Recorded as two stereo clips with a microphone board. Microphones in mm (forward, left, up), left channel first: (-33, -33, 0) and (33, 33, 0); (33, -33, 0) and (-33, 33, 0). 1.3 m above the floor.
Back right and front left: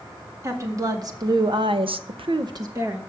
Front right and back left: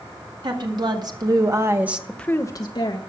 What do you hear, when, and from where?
0.4 s a woman speaking: 100° left, 2 m; by 3.0 s 20° right, 1.1 m